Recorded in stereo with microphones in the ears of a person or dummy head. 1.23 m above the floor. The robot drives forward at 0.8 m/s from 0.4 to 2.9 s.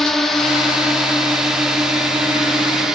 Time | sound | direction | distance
0.0 | a drone | centre (ahead or behind) | ?